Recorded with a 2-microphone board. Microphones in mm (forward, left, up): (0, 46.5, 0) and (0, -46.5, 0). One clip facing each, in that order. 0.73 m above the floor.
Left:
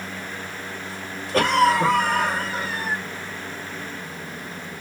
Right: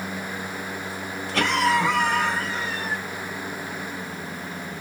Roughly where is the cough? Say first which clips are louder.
Left 4 dB; left.